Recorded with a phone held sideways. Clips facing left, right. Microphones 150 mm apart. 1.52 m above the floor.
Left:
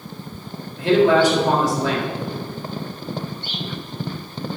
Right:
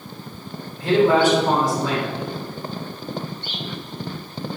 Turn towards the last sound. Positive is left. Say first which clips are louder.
# left 1 dB
turn(degrees=75)  # may be behind; listen again after turning